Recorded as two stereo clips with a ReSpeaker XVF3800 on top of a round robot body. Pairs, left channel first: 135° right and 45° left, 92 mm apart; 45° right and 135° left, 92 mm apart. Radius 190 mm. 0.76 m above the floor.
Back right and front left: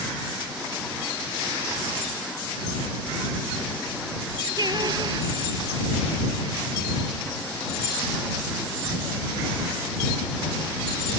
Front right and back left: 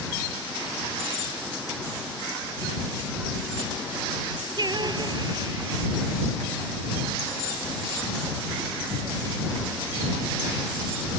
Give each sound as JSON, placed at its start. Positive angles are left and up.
{"t": 4.6, "sound": "singing", "azimuth_deg": 90}